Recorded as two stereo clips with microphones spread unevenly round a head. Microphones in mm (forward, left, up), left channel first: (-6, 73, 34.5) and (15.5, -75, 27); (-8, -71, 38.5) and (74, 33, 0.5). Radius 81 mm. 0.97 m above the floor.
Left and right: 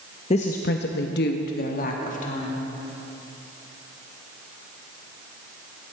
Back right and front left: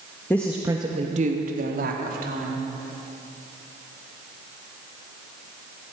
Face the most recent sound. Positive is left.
turn(degrees=55)